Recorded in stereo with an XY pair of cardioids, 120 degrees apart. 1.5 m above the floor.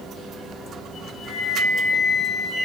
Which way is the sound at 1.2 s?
40° left.